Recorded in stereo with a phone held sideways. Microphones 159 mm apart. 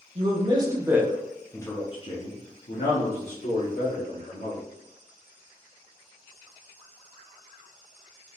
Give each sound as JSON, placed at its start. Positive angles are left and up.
{"t": 0.1, "sound": "a man speaking", "side_deg": -35, "distance_m": 1.0}